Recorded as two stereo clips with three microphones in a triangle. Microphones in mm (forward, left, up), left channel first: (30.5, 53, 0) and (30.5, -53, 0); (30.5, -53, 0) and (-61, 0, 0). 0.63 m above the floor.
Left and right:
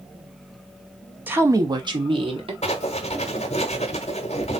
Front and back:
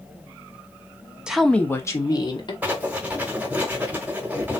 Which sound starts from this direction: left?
Writing, at 2.6 s.